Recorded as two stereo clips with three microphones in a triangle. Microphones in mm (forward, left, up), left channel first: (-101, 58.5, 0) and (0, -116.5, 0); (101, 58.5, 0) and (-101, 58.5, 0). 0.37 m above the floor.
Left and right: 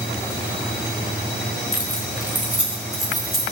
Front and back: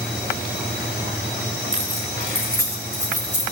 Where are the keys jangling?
125° right, 1.7 m; by 3.4 s 150° right, 4 m.